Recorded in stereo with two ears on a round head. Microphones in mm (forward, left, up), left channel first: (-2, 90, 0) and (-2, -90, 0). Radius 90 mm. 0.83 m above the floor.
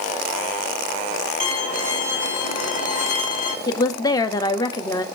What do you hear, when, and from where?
1.4 s a violin: 35° left (ahead or behind), 4 m
3.7 s a woman speaking: 20° left (ahead or behind), 1.2 m